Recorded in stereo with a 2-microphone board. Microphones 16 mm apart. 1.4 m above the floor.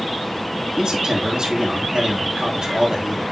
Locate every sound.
0.8 s a man speaking: 80° right, 4 m